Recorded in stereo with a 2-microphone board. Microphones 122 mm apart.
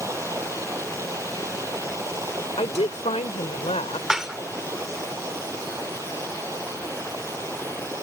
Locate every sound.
0.0 s running water: 25° right (ahead or behind)
2.6 s a woman speaking: 65° left (ahead or behind)
4.1 s dishes clattering: 5° right (ahead or behind)